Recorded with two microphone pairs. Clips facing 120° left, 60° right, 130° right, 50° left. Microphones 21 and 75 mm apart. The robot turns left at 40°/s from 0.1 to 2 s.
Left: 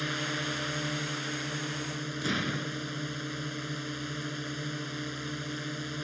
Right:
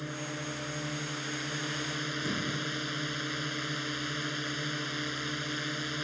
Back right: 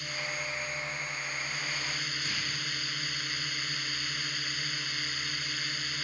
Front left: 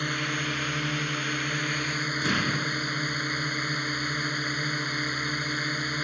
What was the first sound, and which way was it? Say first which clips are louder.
A drone: left 5 dB, front left 7 dB; 80° left.